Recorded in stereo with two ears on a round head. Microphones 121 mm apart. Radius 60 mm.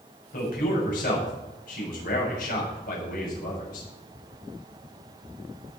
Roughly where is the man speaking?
Left.